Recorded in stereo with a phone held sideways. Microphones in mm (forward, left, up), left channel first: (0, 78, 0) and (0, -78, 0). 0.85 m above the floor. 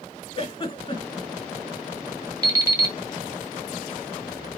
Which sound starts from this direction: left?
A giggle, at 0.3 s.